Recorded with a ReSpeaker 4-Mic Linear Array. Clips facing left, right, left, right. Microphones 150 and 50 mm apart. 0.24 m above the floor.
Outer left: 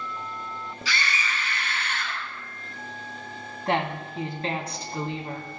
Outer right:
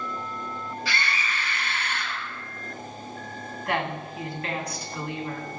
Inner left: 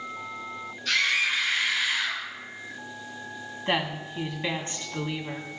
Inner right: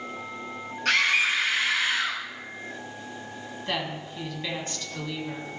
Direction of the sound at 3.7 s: 30° left (ahead or behind).